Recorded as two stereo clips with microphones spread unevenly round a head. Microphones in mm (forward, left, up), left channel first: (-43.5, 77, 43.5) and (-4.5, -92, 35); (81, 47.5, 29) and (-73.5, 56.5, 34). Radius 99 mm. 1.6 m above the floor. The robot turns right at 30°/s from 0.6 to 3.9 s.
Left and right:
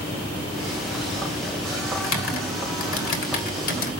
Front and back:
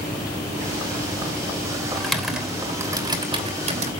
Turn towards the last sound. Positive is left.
turn(degrees=140)